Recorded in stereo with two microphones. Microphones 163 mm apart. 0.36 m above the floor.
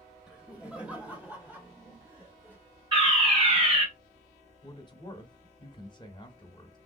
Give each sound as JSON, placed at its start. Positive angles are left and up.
{"t": 0.3, "sound": "laughter", "side_deg": -5, "distance_m": 1.4}
{"t": 2.9, "sound": "a fire alarm", "side_deg": -30, "distance_m": 2.5}
{"t": 4.6, "sound": "a man speaking", "side_deg": 25, "distance_m": 0.9}